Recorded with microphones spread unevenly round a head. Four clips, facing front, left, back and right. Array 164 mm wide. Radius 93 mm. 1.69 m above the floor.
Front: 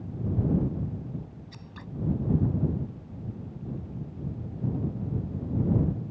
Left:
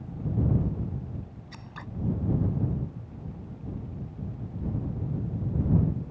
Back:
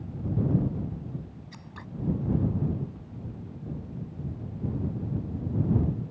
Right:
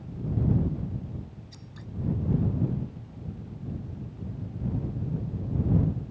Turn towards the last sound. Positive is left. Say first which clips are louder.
# left 4 dB, back 1 dB
turn(degrees=120)